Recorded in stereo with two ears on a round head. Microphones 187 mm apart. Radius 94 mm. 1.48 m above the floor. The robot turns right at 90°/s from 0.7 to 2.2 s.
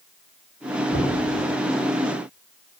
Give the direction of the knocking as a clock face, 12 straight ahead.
8 o'clock.